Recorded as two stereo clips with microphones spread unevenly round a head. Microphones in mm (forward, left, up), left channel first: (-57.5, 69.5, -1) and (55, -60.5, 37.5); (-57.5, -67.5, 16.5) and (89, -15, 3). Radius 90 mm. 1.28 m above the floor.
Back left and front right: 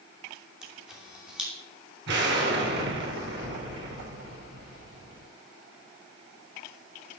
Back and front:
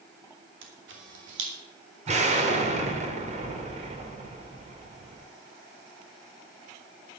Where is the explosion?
25° right, 3 m.